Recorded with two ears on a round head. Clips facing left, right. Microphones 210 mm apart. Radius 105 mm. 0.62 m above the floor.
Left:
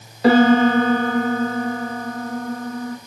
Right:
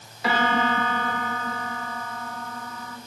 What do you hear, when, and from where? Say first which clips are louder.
0.2 s a piano: left 12 dB; 35° left (ahead or behind), 2 m